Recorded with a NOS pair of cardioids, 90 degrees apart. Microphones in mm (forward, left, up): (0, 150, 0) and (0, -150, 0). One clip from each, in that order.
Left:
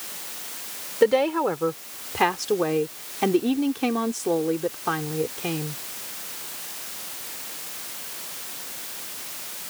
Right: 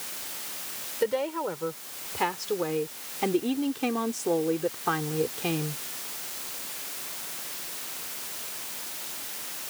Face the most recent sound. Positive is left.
turn(degrees=-10)